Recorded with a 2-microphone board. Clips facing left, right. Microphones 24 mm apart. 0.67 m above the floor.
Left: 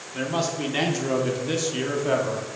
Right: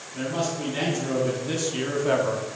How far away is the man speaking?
About 1.5 m.